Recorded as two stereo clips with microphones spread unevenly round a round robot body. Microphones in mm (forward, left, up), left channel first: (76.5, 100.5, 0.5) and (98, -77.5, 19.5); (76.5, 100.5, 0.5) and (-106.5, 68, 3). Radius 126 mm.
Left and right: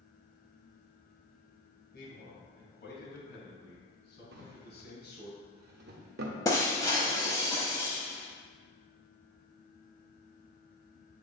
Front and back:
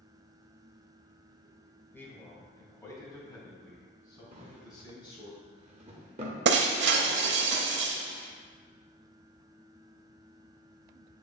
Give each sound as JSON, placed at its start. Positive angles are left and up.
{"t": 1.9, "sound": "a man speaking", "azimuth_deg": 85, "distance_m": 2.0}
{"t": 4.3, "sound": "a drawer", "azimuth_deg": -110, "distance_m": 0.7}
{"t": 6.5, "sound": "breaking glass", "azimuth_deg": 175, "distance_m": 0.8}